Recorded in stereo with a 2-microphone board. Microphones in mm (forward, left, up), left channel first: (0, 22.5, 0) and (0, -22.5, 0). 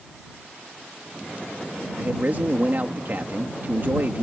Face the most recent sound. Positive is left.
turn(degrees=-45)  # may be behind; listen again after turning